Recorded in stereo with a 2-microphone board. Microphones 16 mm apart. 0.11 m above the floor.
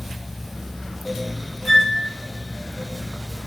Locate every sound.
1.6 s a flute: 20° left (ahead or behind), 0.9 m